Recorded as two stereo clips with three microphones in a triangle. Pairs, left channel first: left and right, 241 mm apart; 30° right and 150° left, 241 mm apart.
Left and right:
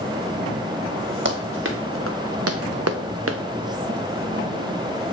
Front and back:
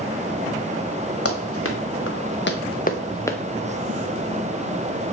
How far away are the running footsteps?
About 1.9 m.